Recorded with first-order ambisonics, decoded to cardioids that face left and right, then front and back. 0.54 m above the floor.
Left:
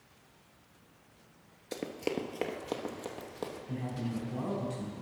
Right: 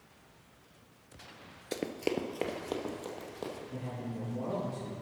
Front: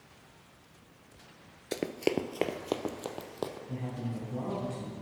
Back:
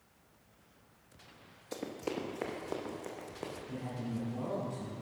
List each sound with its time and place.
1.7 s running footsteps: 20° right, 0.6 m; by 3.6 s 10° left, 1.4 m
3.7 s a man speaking: 65° left, 3.5 m